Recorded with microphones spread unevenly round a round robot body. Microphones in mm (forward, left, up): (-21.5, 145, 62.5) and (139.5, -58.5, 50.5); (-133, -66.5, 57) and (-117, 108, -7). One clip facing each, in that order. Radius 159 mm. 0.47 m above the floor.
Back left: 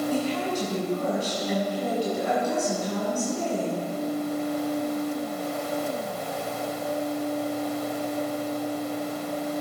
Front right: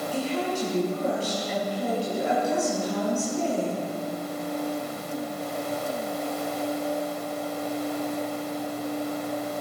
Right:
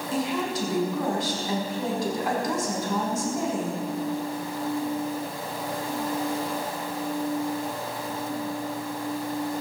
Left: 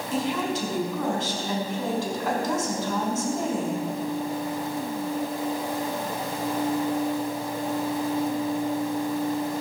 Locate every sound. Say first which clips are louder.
0.1 s a woman speaking: back left 1 dB, left 1 dB; 175° right, 5 m